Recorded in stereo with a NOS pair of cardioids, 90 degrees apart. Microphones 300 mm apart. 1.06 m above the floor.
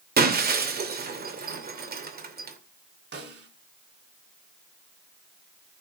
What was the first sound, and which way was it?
Breaking glass, 30° right.